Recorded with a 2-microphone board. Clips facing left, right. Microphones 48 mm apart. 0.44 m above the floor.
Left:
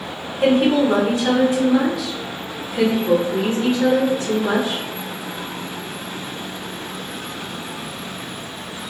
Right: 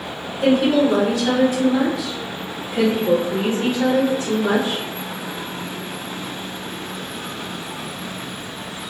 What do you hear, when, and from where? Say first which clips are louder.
0.4 s a woman speaking: even; 45° left (ahead or behind), 1.1 m; by 4.8 s 60° right (ahead or behind), 1.9 m